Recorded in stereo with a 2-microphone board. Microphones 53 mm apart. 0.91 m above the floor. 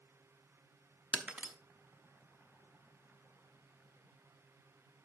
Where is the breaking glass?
25° right (ahead or behind), 0.9 m.